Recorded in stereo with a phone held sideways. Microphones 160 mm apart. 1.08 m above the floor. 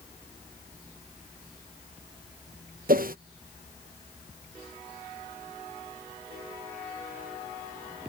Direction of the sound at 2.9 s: 65° right (ahead or behind).